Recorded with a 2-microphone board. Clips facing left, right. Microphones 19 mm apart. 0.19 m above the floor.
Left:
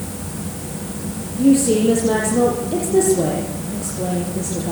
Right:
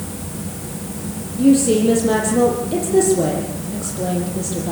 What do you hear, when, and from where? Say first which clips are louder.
1.4 s a woman speaking: right 1 dB; 10° right (ahead or behind), 6.5 m